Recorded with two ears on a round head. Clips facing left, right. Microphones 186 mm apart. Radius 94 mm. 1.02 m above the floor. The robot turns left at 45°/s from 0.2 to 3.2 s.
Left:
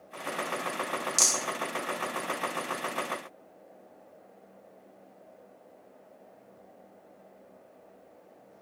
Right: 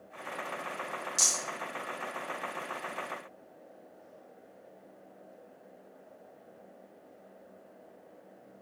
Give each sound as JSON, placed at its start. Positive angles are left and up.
{"t": 1.2, "sound": "a rattle", "side_deg": 25, "distance_m": 0.9}